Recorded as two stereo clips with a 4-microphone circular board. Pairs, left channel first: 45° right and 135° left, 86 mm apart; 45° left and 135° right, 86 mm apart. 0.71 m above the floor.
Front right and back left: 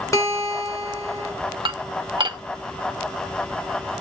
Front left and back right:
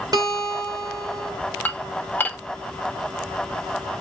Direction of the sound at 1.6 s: 115° left.